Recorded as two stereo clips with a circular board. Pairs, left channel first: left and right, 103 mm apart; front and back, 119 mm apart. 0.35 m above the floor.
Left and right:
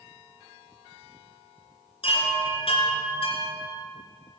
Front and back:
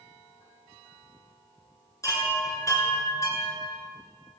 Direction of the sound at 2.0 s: 60° left.